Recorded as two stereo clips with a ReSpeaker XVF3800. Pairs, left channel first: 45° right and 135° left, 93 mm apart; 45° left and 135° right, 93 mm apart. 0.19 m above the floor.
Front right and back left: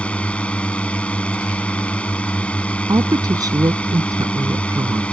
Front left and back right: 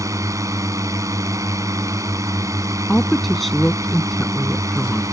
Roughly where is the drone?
Behind right.